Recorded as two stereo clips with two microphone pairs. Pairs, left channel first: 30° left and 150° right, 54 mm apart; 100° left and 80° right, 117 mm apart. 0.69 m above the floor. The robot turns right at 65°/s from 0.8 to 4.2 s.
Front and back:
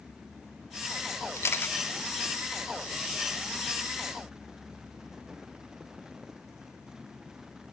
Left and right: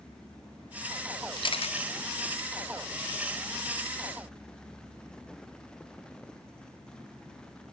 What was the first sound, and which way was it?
A camera shutter, 50° left.